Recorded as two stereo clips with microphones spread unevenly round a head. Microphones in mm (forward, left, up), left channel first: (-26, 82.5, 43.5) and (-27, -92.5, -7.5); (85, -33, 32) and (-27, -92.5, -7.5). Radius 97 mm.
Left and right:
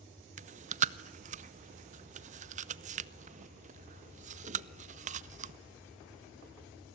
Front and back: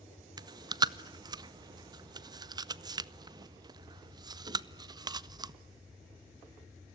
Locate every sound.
0.4 s chewing: 95° right, 0.5 m